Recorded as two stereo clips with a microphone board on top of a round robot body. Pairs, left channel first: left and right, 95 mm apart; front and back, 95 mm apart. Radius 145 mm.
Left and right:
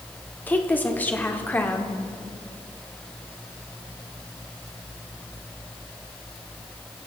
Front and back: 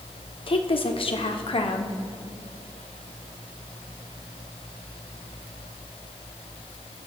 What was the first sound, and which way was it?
A woman speaking, 20° left.